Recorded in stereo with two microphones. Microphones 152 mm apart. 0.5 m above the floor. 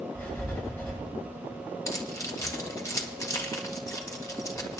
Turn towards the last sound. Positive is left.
turn(degrees=20)  # may be behind; listen again after turning